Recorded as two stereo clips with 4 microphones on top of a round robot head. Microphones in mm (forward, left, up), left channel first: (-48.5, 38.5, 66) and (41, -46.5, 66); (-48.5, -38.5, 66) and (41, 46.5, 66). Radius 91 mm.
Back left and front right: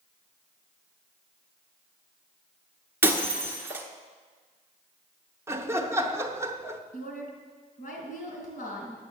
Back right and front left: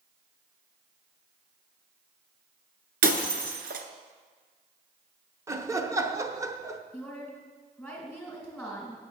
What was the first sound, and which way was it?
Breaking glass, 30° left.